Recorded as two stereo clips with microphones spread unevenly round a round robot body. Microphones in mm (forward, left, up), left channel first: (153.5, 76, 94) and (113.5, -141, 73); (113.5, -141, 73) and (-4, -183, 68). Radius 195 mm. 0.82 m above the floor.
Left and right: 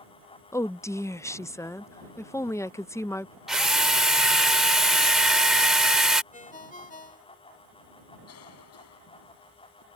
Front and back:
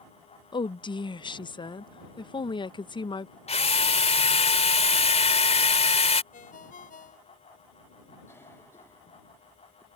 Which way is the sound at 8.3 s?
100° left.